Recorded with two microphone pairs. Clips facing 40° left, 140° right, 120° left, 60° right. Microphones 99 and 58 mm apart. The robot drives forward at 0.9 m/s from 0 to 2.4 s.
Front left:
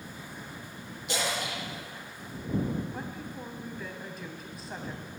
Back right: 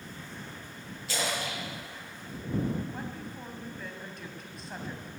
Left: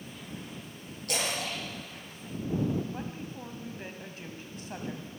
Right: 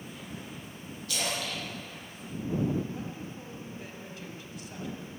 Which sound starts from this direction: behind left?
A woman speaking, at 2.9 s.